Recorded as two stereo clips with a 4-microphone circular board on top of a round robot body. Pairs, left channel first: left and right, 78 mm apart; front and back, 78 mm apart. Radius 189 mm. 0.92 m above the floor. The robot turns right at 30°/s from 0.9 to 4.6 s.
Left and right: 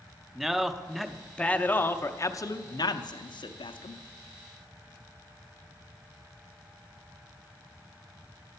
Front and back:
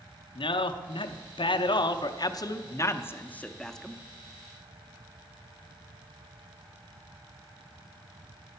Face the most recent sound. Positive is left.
turn(degrees=110)